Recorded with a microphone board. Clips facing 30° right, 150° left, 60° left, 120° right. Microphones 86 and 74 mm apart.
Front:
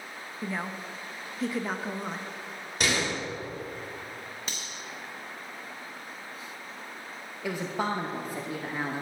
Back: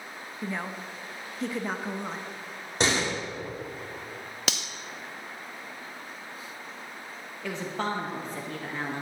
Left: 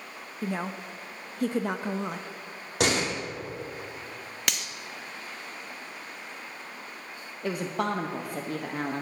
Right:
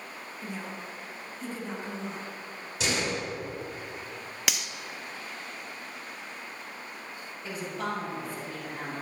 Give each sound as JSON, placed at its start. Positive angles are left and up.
{"t": 0.4, "sound": "a woman speaking", "azimuth_deg": 55, "distance_m": 0.5}
{"t": 2.8, "sound": "a door slam", "azimuth_deg": 90, "distance_m": 1.6}
{"t": 4.5, "sound": "cutlery clinking", "azimuth_deg": 155, "distance_m": 0.6}
{"t": 7.4, "sound": "a woman speaking", "azimuth_deg": 50, "distance_m": 0.8}